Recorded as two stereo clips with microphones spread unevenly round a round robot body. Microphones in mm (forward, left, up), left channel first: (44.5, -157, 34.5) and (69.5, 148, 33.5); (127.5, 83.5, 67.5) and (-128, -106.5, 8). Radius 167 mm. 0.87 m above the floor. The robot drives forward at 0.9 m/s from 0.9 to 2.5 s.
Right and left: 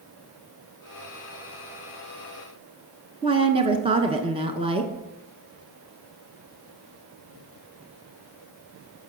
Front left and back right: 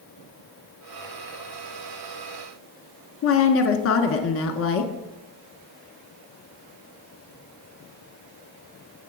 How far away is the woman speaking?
About 0.8 m.